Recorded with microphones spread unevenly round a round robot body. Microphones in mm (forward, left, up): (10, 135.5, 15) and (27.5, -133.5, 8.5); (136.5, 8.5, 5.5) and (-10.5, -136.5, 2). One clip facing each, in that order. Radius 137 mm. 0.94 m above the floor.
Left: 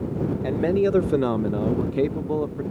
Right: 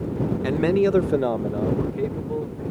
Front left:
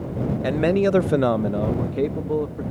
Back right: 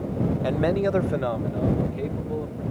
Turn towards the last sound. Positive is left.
turn(degrees=95)